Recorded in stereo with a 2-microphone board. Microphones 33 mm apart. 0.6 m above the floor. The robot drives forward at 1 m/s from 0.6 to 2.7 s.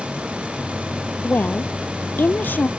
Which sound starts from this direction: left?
A woman speaking, at 1.2 s.